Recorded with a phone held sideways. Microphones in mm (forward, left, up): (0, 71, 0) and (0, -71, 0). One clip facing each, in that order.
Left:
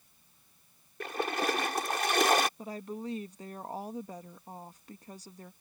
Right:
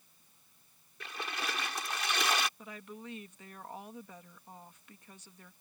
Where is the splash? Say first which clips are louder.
Left 9 dB; 55° left (ahead or behind).